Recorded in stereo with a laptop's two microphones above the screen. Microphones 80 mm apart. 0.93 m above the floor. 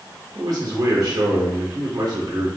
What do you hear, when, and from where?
0.3 s a man speaking: 60° right (ahead or behind), 1.3 m